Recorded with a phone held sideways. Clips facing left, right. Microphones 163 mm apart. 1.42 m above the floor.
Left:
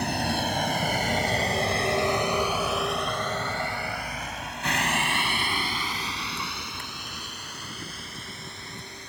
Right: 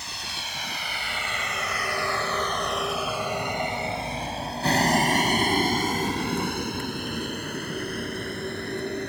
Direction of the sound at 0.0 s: 60° left (ahead or behind).